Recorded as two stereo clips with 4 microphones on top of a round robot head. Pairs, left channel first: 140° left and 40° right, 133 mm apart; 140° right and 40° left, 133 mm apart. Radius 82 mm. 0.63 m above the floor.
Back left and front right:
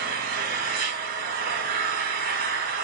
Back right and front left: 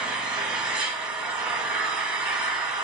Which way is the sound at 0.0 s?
45° right.